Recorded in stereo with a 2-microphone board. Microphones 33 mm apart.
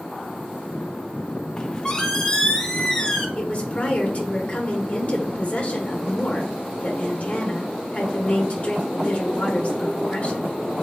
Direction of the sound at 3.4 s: 40° left (ahead or behind).